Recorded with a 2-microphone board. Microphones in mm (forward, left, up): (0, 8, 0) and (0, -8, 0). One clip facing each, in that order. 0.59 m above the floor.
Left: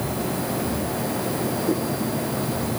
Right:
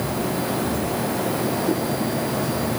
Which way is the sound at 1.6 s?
15° right (ahead or behind).